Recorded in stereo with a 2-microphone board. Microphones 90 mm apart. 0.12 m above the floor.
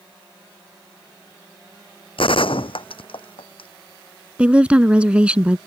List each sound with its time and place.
2.2 s a gunshot: 80° left
4.4 s a woman speaking: 15° right (ahead or behind)